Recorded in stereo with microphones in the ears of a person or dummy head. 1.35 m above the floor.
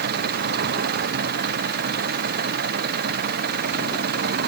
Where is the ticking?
No ticking in this recording.